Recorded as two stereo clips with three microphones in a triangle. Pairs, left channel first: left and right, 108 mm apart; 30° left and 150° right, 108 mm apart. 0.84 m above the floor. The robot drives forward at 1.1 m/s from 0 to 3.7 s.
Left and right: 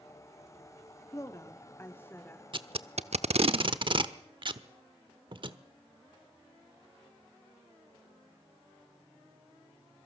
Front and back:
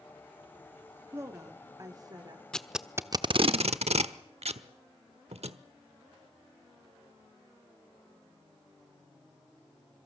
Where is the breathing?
No breathing in this recording.